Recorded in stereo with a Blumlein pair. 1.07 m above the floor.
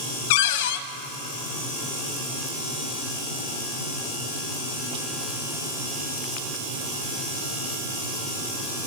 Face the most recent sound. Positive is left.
turn(degrees=50)